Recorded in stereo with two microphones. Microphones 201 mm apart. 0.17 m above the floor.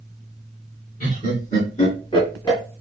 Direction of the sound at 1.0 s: 45° left (ahead or behind).